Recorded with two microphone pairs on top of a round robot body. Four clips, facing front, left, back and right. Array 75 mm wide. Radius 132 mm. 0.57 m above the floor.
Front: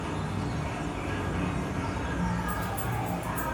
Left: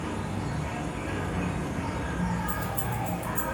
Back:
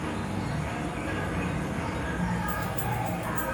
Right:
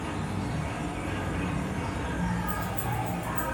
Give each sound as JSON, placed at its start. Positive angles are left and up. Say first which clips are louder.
{"t": 0.0, "sound": "an insect", "louder": "even, back 1 dB", "azimuth_deg": 175, "distance_m": 1.3}
{"t": 2.5, "sound": "keys jangling", "louder": "even, back 1 dB", "azimuth_deg": 140, "distance_m": 0.7}